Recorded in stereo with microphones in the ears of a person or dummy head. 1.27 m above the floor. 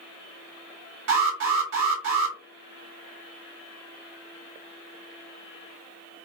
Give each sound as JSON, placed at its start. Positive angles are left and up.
{"t": 1.1, "sound": "an alarm", "side_deg": -70, "distance_m": 1.1}